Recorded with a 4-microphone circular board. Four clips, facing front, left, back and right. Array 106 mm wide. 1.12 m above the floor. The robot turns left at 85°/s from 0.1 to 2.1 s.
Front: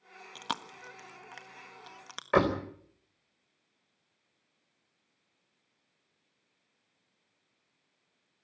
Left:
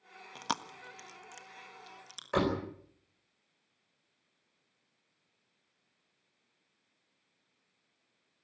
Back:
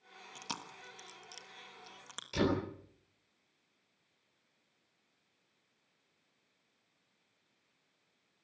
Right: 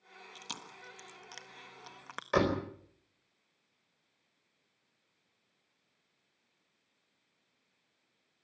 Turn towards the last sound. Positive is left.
turn(degrees=-10)